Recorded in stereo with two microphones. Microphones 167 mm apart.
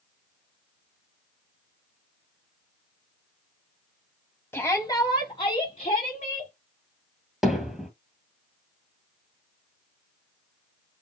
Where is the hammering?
Centre (ahead or behind), 2 m.